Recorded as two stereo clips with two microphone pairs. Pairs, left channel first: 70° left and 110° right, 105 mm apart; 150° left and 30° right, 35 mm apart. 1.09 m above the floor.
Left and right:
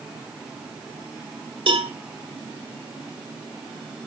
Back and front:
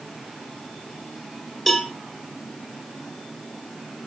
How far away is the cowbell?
About 1.7 m.